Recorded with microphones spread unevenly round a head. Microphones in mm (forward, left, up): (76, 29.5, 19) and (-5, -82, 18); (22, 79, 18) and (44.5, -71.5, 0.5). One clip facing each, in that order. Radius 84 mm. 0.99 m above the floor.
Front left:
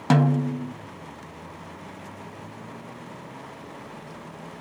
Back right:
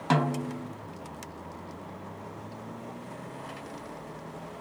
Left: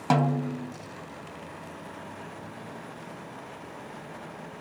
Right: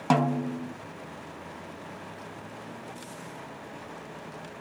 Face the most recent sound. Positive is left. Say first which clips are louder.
# front left 6 dB, even
turn(degrees=15)